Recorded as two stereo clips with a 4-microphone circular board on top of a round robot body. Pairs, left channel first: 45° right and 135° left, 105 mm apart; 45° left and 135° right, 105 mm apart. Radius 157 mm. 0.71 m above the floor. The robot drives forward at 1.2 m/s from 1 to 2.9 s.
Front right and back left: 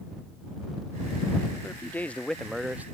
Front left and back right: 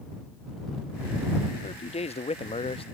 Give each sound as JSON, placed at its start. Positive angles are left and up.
{"t": 1.6, "sound": "a man speaking", "azimuth_deg": 25}